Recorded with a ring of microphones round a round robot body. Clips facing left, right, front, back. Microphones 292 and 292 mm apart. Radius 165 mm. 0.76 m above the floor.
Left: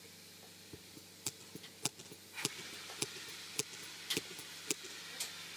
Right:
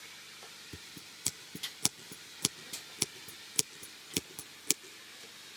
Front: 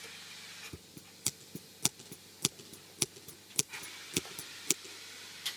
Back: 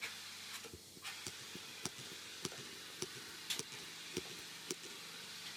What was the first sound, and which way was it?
Scissors, 40° right.